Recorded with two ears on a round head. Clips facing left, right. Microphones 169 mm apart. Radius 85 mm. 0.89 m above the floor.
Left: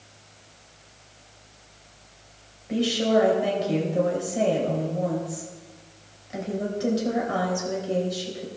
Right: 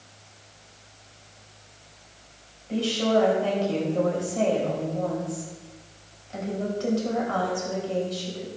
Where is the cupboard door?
No cupboard door in this recording.